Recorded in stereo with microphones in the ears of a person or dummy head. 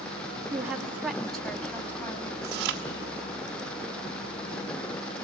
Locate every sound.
0.5 s a woman speaking: 15° right (ahead or behind), 2.5 m; by 2.6 s 15° left (ahead or behind), 3 m
2.4 s chewing: 60° right (ahead or behind), 1.7 m